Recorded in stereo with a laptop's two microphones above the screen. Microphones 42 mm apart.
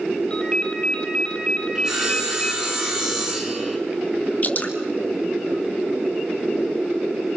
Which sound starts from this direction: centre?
Sawing, at 1.8 s.